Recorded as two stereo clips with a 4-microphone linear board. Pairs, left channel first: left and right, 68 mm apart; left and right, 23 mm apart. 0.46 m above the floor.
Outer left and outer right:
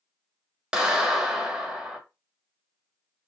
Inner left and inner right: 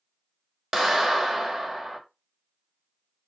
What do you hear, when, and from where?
0.7 s a clap: 15° right (ahead or behind), 1.0 m